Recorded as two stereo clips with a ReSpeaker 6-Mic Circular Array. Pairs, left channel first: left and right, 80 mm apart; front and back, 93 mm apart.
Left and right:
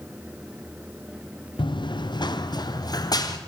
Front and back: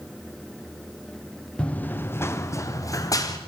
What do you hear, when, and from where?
1.6 s running footsteps: 80° left, 1.4 m; by 3.4 s 50° left, 3 m